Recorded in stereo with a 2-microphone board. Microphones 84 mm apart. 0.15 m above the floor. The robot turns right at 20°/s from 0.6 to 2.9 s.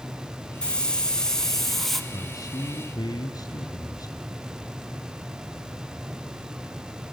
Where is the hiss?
10° left (ahead or behind), 1.5 m; by 2.0 s centre (ahead or behind), 1.5 m.